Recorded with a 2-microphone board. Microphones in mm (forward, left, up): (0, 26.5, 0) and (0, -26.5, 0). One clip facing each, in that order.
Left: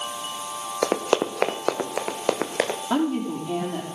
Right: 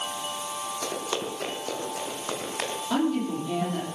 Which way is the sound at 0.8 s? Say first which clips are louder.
Left 11 dB; 65° left (ahead or behind).